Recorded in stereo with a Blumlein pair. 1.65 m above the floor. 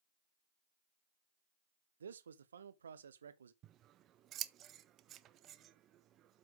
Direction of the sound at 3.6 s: 30° right.